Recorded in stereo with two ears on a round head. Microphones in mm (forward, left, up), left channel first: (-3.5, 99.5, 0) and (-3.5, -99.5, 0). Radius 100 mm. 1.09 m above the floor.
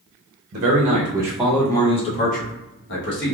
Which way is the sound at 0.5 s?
45° right (ahead or behind).